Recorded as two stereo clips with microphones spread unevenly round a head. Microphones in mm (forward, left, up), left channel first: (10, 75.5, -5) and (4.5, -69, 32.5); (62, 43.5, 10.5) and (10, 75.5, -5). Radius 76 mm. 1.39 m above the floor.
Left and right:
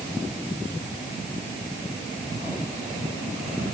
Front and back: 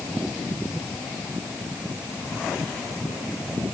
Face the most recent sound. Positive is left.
No sound to turn to.